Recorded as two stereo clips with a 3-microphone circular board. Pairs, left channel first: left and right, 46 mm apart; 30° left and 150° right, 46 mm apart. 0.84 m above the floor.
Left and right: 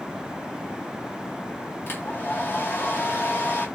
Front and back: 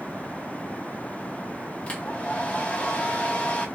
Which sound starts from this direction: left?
A hair dryer, at 1.9 s.